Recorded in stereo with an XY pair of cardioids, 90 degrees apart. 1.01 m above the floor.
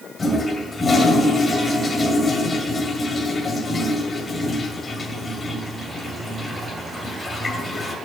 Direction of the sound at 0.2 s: 30° left.